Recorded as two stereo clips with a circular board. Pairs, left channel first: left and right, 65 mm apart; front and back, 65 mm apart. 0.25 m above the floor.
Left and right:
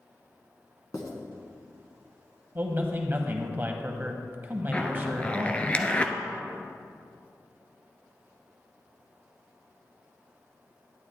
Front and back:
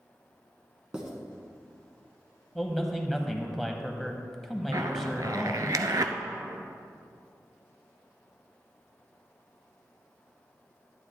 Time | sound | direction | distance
0.9 | writing | 105° left | 1.6 m
2.5 | a man speaking | 85° right | 1.0 m
4.7 | a zipper | 160° left | 0.6 m